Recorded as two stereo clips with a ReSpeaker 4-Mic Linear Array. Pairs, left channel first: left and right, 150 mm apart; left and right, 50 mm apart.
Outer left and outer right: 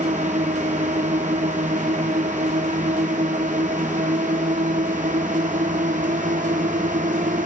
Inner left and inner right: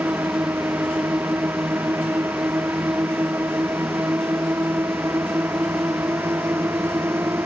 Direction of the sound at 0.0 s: 55° right (ahead or behind).